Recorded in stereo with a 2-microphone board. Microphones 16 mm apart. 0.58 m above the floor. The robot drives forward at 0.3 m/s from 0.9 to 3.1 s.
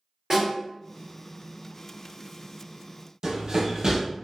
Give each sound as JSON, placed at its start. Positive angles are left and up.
{"t": 0.3, "sound": "a snare drum", "side_deg": -50, "distance_m": 1.8}
{"t": 3.2, "sound": "running footsteps", "side_deg": -55, "distance_m": 0.9}